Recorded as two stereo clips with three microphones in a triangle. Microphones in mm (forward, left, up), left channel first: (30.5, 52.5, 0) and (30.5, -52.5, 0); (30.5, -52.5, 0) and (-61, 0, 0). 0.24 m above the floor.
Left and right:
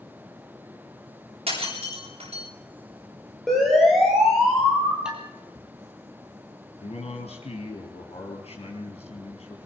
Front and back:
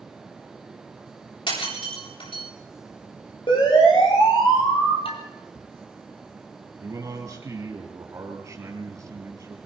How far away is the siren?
About 7.5 m.